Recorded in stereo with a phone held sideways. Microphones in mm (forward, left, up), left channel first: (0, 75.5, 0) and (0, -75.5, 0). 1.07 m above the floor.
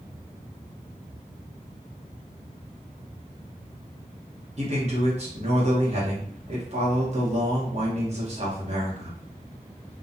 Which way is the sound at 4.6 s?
45° right (ahead or behind).